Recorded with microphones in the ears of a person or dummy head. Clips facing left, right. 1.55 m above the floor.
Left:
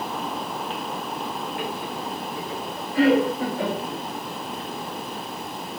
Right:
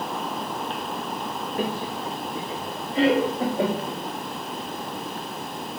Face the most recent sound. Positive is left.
turn(degrees=-20)  # may be behind; listen again after turning